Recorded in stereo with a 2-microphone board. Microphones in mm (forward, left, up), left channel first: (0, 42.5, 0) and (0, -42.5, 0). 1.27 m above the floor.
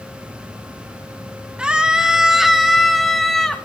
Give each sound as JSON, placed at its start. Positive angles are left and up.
{"t": 1.6, "sound": "a scream", "side_deg": -10, "distance_m": 2.0}